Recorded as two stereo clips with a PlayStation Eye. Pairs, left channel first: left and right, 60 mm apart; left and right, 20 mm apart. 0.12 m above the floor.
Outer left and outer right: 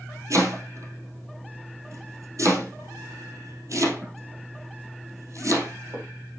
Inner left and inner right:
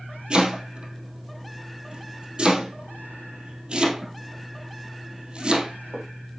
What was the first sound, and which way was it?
Chopping, 65° right (ahead or behind).